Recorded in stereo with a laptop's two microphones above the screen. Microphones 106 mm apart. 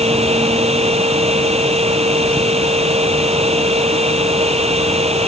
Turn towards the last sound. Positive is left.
turn(degrees=-80)